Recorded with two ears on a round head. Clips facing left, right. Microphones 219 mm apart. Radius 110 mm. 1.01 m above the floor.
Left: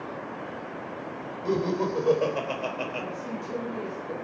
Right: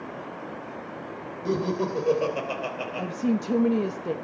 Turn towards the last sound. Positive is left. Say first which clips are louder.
# right 8 dB
turn(degrees=-70)  # may be behind; listen again after turning